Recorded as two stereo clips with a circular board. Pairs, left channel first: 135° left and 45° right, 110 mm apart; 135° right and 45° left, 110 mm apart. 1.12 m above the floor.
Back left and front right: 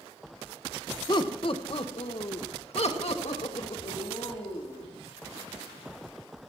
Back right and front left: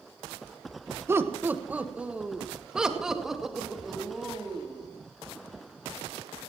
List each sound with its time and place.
1.1 s laughter: 105° left, 1.1 m; by 4.9 s 135° left, 3 m